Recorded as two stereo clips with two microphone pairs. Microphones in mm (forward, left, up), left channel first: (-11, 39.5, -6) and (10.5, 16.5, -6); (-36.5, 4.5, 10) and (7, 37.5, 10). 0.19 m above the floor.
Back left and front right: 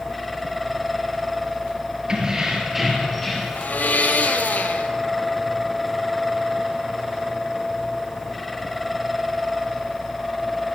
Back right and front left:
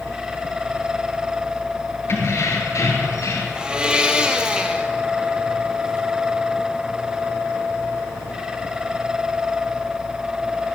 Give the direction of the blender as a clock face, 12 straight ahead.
8 o'clock.